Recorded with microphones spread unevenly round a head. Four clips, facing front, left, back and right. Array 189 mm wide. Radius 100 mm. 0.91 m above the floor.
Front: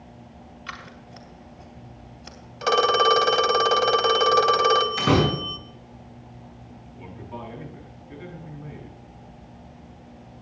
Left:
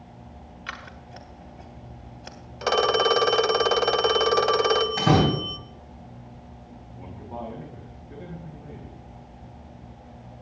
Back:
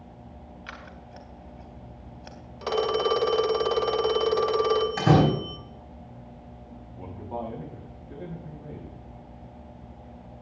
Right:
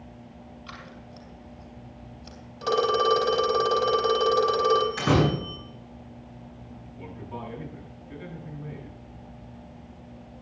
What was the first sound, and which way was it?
Scissors, 85° left.